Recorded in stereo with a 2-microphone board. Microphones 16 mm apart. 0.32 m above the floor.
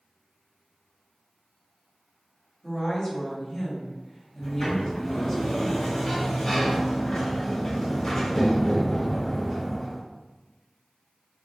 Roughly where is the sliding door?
Left.